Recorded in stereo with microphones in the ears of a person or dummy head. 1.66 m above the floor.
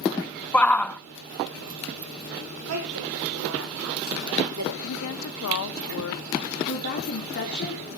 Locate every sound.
0.5 s a shout: 10° left (ahead or behind), 0.8 m
2.7 s a woman speaking: 90° right, 6.5 m
4.8 s a woman speaking: 65° left (ahead or behind), 0.9 m
6.7 s a woman speaking: 55° left (ahead or behind), 4 m